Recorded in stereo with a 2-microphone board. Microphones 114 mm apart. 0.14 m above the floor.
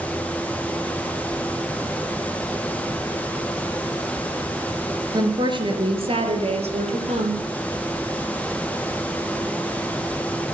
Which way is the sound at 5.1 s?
35° right (ahead or behind).